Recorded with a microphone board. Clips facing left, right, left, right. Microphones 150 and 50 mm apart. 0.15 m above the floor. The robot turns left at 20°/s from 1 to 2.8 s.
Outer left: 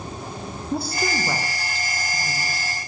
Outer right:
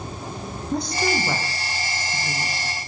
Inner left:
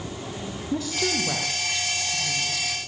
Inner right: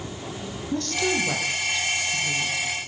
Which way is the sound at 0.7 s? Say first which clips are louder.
Outer right 2 dB, inner right 2 dB; 5° left.